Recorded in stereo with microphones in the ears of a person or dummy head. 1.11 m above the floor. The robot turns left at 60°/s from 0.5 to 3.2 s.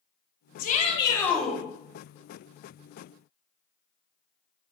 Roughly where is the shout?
Ahead left.